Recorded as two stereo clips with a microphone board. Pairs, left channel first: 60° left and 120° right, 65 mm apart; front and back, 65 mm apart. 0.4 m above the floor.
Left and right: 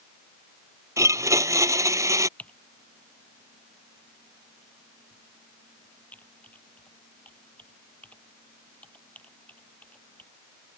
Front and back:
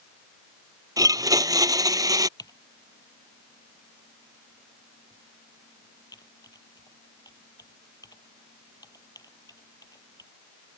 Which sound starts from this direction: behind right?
A blender, at 1.0 s.